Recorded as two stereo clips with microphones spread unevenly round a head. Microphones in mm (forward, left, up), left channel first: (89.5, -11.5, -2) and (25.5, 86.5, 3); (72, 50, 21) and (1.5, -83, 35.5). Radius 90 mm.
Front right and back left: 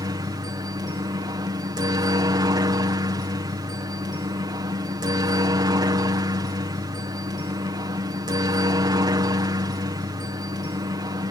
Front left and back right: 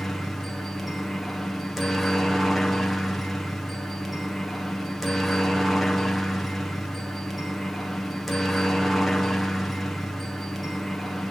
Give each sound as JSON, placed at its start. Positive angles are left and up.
{"t": 0.0, "sound": "a helicopter", "azimuth_deg": 145}